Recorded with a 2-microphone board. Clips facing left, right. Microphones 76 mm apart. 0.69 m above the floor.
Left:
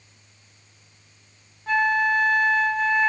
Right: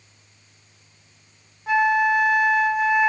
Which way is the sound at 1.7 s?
15° right (ahead or behind).